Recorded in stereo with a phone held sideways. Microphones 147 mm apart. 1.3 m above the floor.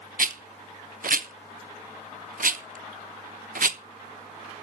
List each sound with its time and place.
0.2 s a rattle: 70° right (ahead or behind), 0.9 m